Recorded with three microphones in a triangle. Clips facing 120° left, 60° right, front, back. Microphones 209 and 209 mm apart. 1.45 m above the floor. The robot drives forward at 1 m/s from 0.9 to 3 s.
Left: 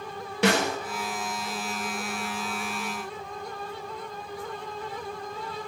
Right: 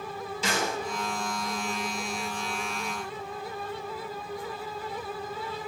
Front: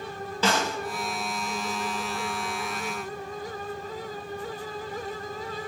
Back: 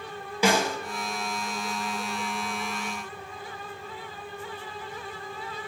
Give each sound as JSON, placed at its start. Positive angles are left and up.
{"t": 0.4, "sound": "a snare drum", "azimuth_deg": 100, "distance_m": 2.5}